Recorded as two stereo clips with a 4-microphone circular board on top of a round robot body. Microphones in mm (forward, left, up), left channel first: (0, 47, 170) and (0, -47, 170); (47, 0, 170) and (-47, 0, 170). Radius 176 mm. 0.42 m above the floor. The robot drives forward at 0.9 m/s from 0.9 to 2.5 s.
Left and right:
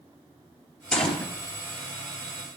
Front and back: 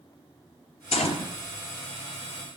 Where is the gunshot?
5° left, 2.5 m; by 1.3 s 10° left, 2 m.